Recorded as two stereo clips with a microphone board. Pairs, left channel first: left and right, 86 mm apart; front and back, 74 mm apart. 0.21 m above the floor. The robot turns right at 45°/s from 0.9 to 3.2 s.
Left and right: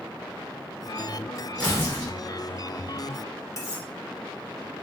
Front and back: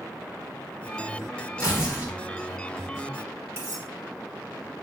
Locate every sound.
1.6 s tearing paper: 20° left, 2.0 m; by 2.1 s 45° left, 2.0 m
3.6 s cutlery clinking: 130° left, 1.1 m